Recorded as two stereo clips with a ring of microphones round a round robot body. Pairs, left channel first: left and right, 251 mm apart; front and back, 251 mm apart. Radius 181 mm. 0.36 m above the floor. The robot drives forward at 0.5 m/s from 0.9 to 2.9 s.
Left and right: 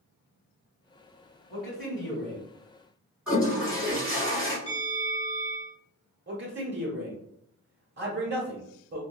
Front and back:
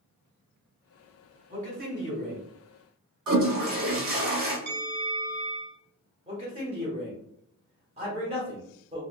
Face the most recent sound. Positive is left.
turn(degrees=-120)